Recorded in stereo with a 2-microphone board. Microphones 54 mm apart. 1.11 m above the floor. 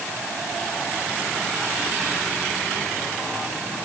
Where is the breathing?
I don't hear breathing.